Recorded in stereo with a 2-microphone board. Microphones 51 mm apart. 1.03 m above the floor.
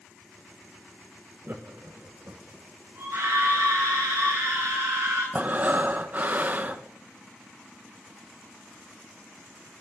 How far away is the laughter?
About 0.6 m.